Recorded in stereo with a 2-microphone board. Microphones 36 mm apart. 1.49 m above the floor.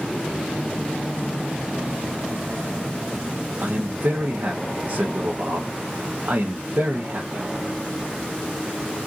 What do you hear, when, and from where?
3.6 s a man speaking: 65° right (ahead or behind), 1.3 m